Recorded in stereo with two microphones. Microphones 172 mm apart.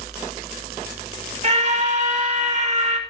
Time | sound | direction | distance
1.4 | a scream | 40° right (ahead or behind) | 2 m